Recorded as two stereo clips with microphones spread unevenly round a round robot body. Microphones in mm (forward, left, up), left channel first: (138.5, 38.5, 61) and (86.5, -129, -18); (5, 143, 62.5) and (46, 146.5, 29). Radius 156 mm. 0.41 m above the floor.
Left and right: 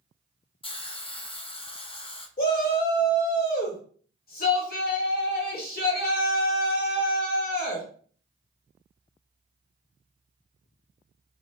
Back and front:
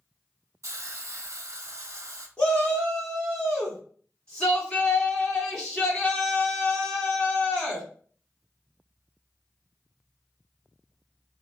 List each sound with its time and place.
0.6 s a hiss: 20° left, 0.7 m
2.4 s a shout: 45° left, 1.6 m